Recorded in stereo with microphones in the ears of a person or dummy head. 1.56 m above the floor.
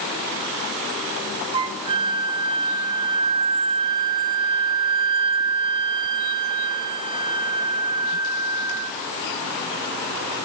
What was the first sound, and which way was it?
A flute, 25° right (ahead or behind).